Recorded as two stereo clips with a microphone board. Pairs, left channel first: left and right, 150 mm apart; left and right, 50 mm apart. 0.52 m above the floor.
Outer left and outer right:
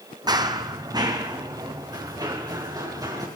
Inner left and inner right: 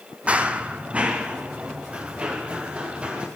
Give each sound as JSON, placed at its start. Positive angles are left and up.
{"t": 0.3, "sound": "running footsteps", "side_deg": -25, "distance_m": 1.0}